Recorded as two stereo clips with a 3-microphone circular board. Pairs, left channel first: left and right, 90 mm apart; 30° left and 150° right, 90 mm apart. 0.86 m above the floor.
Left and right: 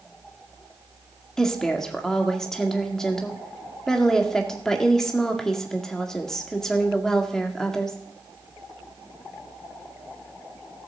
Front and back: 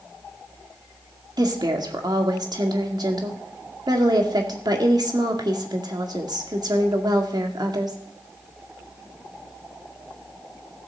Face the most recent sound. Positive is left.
turn(degrees=175)